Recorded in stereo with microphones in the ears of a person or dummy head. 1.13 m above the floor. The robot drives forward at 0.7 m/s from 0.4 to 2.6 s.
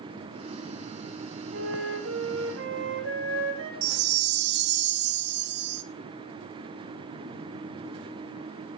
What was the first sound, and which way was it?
A flute, 80° right.